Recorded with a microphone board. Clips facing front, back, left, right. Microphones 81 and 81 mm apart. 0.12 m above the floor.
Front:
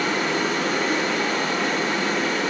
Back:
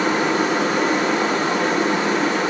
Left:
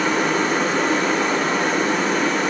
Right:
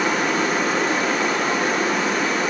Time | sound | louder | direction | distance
0.0 | running water | back 4 dB, left 1 dB | 175° right | 2 m